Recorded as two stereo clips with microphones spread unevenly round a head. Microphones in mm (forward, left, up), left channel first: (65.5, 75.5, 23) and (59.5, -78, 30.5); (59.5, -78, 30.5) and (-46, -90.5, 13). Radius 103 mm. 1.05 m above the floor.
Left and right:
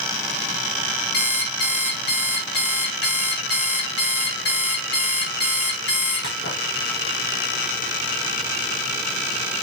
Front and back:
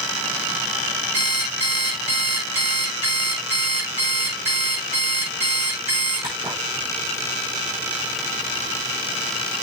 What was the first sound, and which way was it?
An alarm clock, 130° left.